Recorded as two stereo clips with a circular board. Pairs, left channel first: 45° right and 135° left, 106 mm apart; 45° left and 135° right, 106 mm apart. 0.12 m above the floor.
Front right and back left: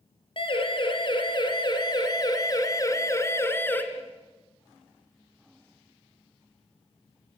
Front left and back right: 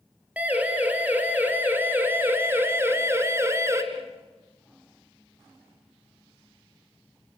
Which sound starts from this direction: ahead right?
A siren, at 0.4 s.